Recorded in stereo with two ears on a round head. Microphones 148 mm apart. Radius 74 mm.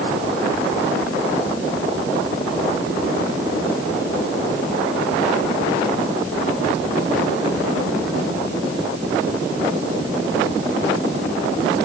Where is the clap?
I don't hear a clap.